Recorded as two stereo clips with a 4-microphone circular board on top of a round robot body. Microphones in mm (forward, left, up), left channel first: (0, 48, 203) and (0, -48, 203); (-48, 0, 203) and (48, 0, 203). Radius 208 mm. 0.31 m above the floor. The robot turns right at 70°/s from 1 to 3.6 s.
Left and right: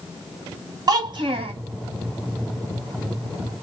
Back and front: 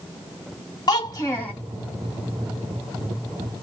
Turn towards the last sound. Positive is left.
turn(degrees=50)